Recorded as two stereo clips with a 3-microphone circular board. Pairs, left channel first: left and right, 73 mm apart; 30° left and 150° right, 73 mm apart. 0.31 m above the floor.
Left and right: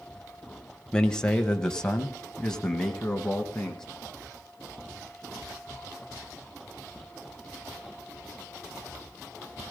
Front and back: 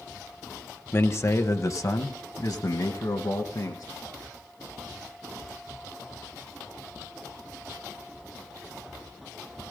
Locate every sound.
0.9 s a man speaking: 20° left, 1.3 m; by 3.8 s 10° left, 3 m